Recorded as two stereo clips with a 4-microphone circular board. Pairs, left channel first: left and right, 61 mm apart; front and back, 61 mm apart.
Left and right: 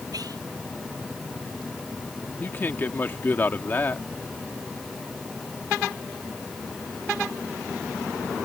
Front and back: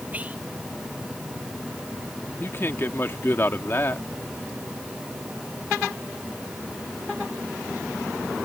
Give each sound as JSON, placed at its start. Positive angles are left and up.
{"t": 0.1, "sound": "whispering", "azimuth_deg": -110}
{"t": 2.4, "sound": "a man speaking", "azimuth_deg": 40}